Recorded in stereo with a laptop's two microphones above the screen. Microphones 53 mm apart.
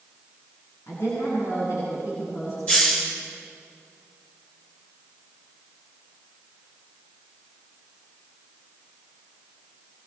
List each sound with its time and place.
0.9 s a woman speaking: 70° left (ahead or behind), 8.5 m
2.7 s a hiss: 25° left (ahead or behind), 5 m